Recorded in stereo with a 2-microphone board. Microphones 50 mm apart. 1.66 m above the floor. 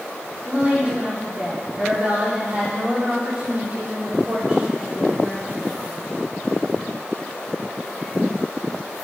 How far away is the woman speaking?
About 5 m.